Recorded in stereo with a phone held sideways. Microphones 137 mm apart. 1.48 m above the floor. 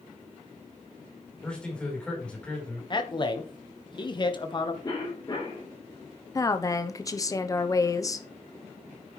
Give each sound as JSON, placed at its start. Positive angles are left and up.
{"t": 1.4, "sound": "a man speaking", "side_deg": 10, "distance_m": 4.5}
{"t": 2.9, "sound": "a man speaking", "side_deg": 35, "distance_m": 1.3}
{"t": 4.8, "sound": "a cough", "side_deg": 30, "distance_m": 3.5}
{"t": 6.3, "sound": "a woman speaking", "side_deg": 25, "distance_m": 0.8}